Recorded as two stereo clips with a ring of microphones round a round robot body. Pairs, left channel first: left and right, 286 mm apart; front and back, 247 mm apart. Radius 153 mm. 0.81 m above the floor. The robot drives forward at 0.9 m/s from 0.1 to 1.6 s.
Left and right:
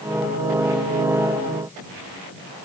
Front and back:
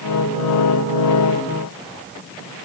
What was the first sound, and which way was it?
Only background noise.